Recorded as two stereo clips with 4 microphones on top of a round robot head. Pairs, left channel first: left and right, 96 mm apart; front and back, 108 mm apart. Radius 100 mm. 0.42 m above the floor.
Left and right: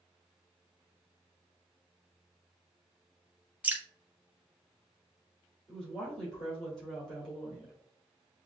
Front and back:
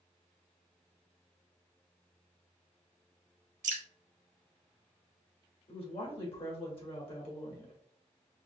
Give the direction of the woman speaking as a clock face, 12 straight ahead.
12 o'clock.